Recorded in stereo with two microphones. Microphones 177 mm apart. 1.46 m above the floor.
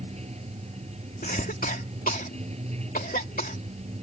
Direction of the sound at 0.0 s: 35° right (ahead or behind).